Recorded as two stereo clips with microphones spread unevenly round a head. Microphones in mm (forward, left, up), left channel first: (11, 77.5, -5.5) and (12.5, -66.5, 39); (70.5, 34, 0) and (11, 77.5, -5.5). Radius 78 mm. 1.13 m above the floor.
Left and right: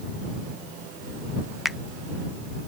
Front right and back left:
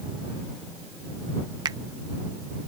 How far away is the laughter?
I don't hear laughter.